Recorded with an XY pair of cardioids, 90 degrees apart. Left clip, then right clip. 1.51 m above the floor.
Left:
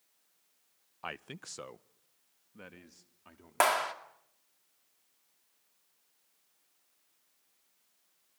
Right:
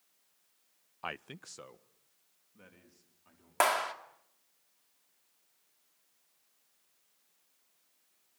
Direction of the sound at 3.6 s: 10° left.